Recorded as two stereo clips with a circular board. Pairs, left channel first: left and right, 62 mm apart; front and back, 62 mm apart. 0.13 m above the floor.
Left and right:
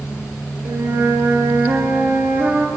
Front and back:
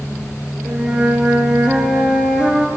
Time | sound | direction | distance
0.7 | a flute | 110° right | 1.1 m